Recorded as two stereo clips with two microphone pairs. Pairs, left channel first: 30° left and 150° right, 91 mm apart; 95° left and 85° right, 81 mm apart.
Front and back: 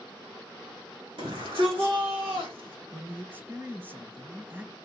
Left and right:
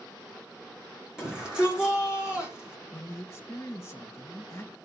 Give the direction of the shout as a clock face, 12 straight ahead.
6 o'clock.